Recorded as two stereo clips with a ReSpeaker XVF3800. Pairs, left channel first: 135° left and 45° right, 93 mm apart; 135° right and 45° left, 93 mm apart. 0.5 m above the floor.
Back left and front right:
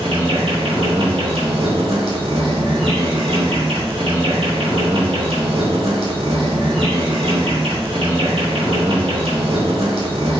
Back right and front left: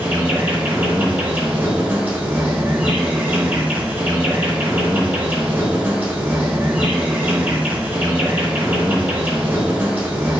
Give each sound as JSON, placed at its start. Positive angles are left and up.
{"t": 0.0, "sound": "an insect", "azimuth_deg": -25, "distance_m": 0.9}